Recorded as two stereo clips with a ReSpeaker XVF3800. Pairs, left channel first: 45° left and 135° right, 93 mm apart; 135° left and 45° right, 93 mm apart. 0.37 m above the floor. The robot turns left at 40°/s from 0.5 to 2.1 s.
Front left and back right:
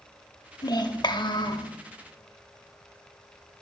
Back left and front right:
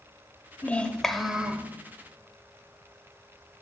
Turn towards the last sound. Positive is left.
turn(degrees=10)